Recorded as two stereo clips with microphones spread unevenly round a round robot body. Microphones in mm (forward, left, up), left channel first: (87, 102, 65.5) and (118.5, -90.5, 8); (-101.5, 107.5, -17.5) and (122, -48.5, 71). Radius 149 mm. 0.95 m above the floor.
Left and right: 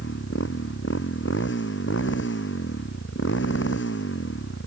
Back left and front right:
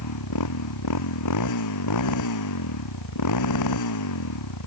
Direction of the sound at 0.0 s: 150° left.